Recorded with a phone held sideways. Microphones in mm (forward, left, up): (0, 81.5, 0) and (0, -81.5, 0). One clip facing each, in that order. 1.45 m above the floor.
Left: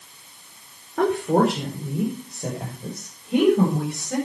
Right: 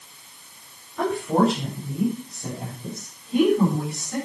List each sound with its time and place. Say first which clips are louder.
1.0 s a woman speaking: left 2 dB; 65° left (ahead or behind), 4.5 m; by 4.2 s 75° left (ahead or behind), 8 m